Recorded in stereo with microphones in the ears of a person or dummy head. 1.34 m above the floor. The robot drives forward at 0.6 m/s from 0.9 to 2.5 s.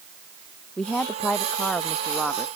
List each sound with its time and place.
0.8 s a woman speaking: 15° left (ahead or behind); by 2.5 s 10° left (ahead or behind)